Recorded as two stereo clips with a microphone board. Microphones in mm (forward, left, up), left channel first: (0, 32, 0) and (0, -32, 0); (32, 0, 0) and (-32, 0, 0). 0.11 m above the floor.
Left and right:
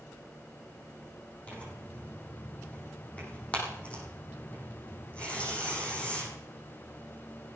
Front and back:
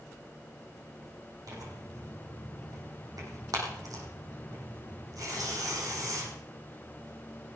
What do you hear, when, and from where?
1.5 s tearing paper: 160° left, 6 m